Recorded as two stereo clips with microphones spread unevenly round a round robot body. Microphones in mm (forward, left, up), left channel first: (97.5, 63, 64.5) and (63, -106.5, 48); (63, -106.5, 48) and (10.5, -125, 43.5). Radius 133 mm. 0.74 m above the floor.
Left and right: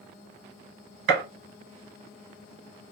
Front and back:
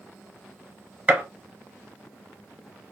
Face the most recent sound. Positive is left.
turn(degrees=-105)